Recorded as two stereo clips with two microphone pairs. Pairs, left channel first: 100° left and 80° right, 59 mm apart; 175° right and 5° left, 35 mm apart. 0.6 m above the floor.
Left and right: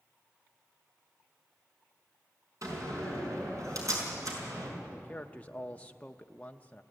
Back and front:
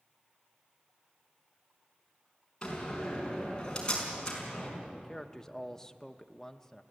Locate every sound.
2.6 s a door slam: 105° right, 5 m
4.9 s a man speaking: 115° left, 0.6 m